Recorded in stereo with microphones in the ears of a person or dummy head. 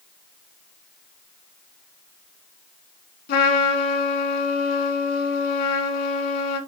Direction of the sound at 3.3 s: 55° left (ahead or behind).